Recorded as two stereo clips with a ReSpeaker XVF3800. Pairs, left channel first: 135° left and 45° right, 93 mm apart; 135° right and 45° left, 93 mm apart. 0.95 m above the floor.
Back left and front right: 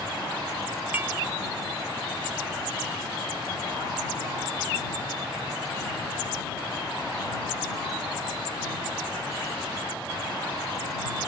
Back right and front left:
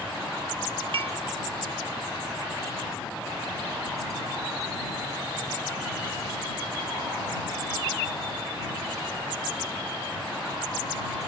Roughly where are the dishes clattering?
Ahead.